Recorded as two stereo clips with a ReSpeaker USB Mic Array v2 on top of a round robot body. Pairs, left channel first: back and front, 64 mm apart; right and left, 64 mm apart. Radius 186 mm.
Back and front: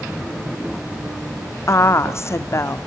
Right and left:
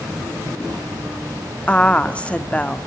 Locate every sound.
1.7 s a woman speaking: 155° right, 1.7 m